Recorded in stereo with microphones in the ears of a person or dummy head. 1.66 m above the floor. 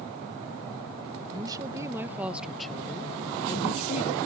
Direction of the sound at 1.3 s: 25° right (ahead or behind).